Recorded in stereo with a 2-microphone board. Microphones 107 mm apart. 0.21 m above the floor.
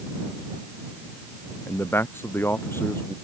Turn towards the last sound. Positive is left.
turn(degrees=25)  # may be behind; listen again after turning